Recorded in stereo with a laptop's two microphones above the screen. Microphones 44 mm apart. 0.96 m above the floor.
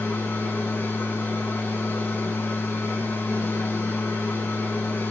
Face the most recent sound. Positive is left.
turn(degrees=60)  # may be behind; listen again after turning